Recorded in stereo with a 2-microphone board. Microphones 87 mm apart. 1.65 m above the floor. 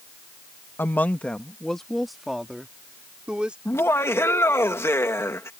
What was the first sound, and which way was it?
A woman speaking, 25° left (ahead or behind).